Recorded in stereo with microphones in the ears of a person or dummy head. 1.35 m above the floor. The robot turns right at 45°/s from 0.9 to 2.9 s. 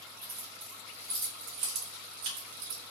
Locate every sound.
0.2 s keys jangling: 5° right (ahead or behind), 0.7 m; by 2.8 s 50° right (ahead or behind), 0.7 m